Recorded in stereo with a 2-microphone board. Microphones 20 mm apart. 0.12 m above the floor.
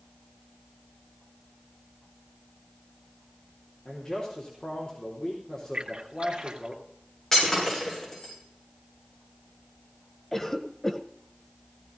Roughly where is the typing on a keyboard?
No typing on a keyboard in this recording.